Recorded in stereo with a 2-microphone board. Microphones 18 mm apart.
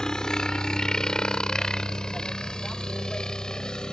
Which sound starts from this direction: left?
A helicopter, at 0.0 s.